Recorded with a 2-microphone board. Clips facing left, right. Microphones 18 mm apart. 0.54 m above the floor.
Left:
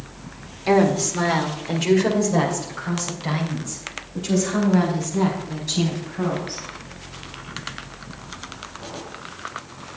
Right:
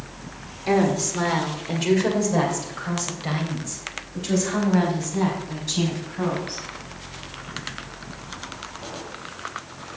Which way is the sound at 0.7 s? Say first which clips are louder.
Left 3 dB; 15° left (ahead or behind).